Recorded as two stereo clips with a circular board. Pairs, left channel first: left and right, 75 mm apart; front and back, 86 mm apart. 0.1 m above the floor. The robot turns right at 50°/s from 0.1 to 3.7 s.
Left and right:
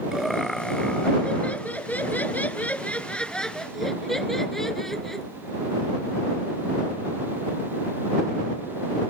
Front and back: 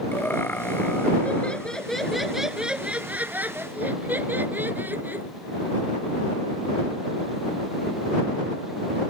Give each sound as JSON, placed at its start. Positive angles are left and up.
{"t": 0.1, "sound": "laughter", "azimuth_deg": -10}